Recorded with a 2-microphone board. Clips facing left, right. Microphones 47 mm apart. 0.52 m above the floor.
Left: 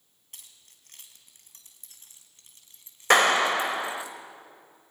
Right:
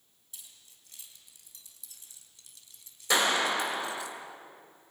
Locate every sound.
0.3 s keys jangling: 55° left (ahead or behind), 3.5 m; by 4.1 s 20° left (ahead or behind), 3.5 m
3.1 s a clap: 55° left (ahead or behind), 2 m